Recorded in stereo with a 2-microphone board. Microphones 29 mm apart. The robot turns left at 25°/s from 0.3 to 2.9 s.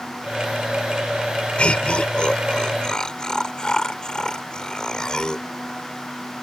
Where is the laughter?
50° left (ahead or behind); by 5.5 s 30° left (ahead or behind).